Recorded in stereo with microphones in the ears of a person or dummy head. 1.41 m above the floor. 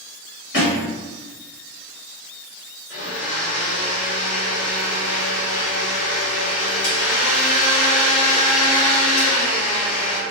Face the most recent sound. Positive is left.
turn(degrees=75)  # may be behind; listen again after turning